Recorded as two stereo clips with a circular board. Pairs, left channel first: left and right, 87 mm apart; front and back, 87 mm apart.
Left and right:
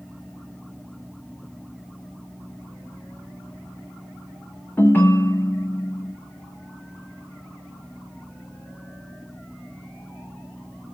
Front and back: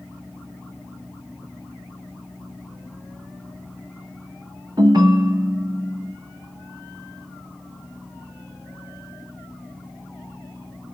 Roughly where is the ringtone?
Behind left.